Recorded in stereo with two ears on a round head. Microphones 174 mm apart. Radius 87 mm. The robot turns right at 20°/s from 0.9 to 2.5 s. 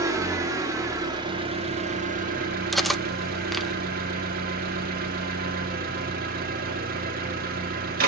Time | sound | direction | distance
0.0 | an engine running | 160° right | 2 m
2.7 | cutlery clinking | centre (ahead or behind) | 0.6 m